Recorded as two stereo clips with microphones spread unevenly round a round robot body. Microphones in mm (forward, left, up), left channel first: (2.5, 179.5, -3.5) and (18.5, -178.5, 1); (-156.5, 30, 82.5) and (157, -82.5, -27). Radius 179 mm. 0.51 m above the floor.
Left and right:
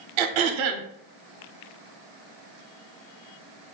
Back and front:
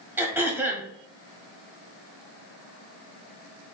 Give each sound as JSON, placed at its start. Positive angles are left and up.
{"t": 0.2, "sound": "throat clearing", "azimuth_deg": -100, "distance_m": 0.5}